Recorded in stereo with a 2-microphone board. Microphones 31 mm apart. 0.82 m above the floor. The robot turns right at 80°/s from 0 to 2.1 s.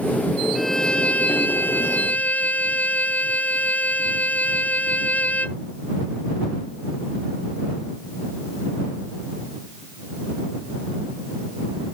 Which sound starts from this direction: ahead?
A violin, at 0.6 s.